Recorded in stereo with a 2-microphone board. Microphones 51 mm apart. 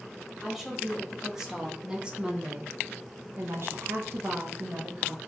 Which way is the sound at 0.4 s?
Centre (ahead or behind).